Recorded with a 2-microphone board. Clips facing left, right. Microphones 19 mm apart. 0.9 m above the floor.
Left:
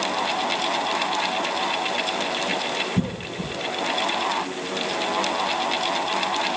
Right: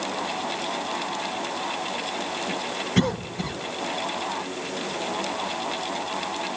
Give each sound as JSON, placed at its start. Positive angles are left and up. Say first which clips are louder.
{"t": 3.0, "sound": "a cough", "louder": "right 3 dB", "side_deg": -65, "distance_m": 1.1}